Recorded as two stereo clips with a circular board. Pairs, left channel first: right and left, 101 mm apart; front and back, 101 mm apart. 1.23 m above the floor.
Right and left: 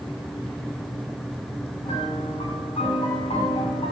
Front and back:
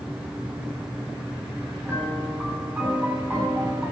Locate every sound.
1.9 s a piano: 105° right, 9 m